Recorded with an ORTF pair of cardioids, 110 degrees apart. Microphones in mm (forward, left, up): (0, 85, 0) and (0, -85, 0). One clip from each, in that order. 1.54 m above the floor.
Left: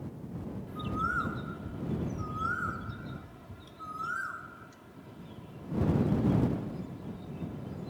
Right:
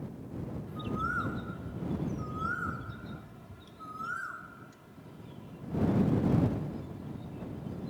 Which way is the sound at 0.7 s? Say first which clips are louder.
Left 2 dB; 15° left.